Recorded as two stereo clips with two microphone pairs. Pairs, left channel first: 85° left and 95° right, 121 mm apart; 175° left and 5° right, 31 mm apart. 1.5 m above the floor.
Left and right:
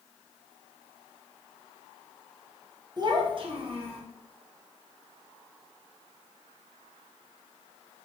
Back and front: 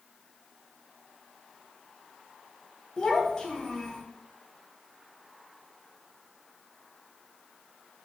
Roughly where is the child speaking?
Behind right.